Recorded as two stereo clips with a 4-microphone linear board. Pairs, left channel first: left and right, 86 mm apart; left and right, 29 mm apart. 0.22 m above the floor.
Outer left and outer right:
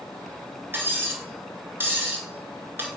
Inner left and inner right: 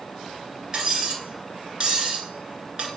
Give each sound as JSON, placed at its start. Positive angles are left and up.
{"t": 0.7, "sound": "cutlery clinking", "side_deg": -25, "distance_m": 1.6}